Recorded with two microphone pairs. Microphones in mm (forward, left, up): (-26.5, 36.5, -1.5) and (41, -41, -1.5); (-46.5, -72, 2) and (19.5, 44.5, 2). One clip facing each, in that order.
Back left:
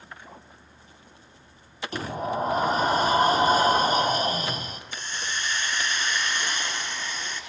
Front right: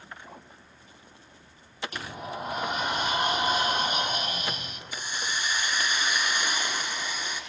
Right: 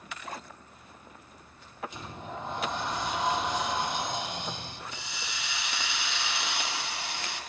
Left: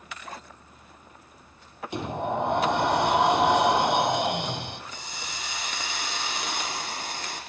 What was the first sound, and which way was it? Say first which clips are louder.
A sliding door: back left 10 dB, left 12 dB; 80° left.